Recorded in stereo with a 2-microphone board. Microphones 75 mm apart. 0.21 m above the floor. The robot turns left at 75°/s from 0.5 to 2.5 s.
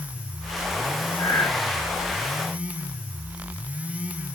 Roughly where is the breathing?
Left.